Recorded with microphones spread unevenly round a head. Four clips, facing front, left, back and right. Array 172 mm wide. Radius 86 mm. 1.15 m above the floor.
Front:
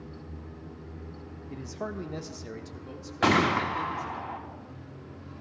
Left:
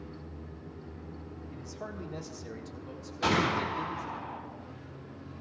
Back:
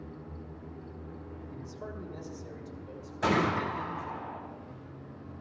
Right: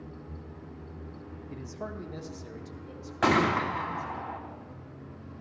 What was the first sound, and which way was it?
A man speaking, 45° right.